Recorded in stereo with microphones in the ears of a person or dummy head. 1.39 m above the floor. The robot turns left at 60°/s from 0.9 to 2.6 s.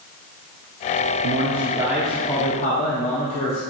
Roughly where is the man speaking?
Behind right.